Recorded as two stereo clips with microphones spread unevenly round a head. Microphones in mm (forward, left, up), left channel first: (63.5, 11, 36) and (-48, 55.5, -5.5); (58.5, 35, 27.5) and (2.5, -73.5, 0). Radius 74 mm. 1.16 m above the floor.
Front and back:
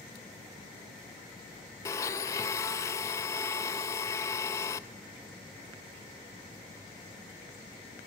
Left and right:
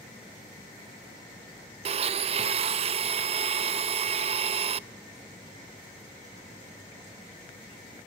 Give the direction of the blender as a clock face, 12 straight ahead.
3 o'clock.